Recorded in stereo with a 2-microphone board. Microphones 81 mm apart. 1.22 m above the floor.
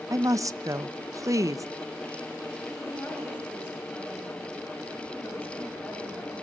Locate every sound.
0.1 s a woman speaking: 45° right (ahead or behind), 0.7 m
2.8 s a woman speaking: 20° left (ahead or behind), 6.5 m